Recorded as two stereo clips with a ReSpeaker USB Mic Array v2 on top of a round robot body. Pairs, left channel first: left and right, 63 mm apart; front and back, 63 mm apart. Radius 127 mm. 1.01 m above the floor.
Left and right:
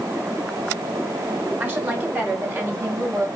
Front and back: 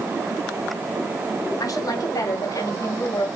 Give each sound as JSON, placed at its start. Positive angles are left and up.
{"t": 1.6, "sound": "a woman speaking", "azimuth_deg": -25, "distance_m": 4.0}